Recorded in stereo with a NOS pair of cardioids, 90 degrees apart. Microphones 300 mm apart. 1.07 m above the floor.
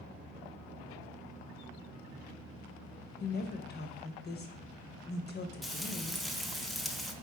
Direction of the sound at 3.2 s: 35° left.